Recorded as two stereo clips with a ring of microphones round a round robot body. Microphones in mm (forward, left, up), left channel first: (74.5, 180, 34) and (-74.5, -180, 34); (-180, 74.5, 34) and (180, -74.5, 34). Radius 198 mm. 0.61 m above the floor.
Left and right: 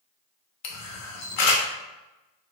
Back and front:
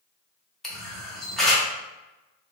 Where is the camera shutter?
70° left, 0.7 m.